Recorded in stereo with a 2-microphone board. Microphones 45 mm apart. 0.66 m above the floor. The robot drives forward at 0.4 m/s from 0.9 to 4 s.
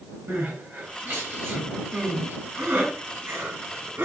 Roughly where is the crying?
Right.